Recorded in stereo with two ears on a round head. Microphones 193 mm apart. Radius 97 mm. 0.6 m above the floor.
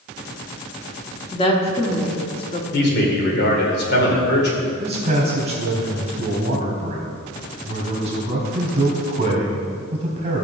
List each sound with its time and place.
1.3 s a woman speaking: 25° left (ahead or behind), 1.5 m
2.7 s a man speaking: 50° left (ahead or behind), 2.5 m
4.8 s a man speaking: 30° right (ahead or behind), 4 m